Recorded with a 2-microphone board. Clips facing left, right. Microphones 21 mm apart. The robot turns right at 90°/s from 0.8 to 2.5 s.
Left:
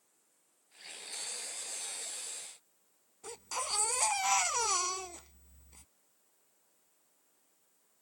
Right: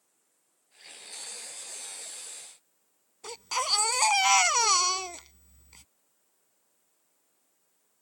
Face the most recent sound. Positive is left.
turn(degrees=-65)  # may be behind; listen again after turning